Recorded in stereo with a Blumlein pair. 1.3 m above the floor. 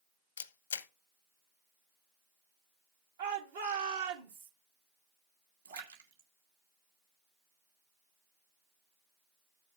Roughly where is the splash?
Ahead right.